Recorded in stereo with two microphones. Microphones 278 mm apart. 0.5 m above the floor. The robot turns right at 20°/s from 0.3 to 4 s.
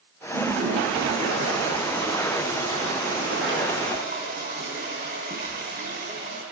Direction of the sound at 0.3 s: 110° right.